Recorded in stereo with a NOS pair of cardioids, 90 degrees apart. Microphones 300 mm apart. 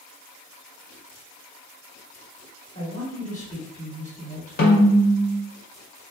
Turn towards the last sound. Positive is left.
turn(degrees=35)